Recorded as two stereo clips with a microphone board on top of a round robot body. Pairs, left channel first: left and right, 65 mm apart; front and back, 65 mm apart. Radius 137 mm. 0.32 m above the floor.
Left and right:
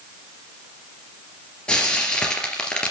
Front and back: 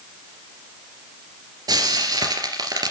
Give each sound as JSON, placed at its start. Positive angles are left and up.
{"t": 1.7, "sound": "frying", "azimuth_deg": 165, "distance_m": 3.0}